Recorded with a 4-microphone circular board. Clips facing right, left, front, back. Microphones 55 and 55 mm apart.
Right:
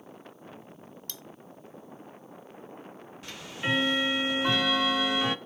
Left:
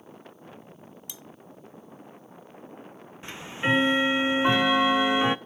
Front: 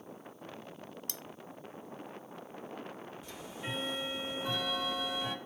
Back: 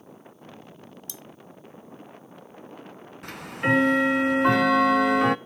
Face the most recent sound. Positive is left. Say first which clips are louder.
# left 5 dB, back 19 dB
turn(degrees=155)